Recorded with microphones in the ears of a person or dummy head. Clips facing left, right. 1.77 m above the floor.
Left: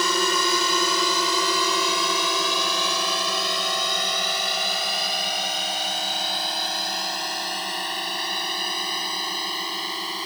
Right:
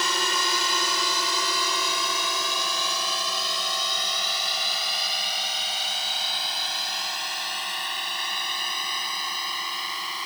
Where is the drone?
80° left; by 10.3 s 30° left (ahead or behind).